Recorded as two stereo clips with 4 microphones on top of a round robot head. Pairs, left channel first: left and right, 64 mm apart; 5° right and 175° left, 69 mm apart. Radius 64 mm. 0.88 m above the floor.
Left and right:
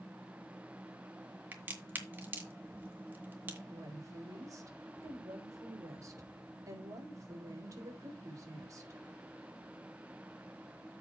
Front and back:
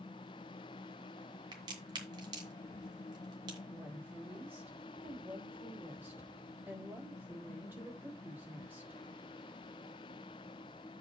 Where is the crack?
145° right, 2 m.